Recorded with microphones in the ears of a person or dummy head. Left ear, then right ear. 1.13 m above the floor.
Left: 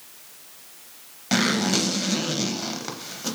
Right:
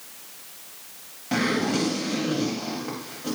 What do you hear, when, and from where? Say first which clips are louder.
1.3 s a zipper: left 2 dB; 55° left (ahead or behind), 0.8 m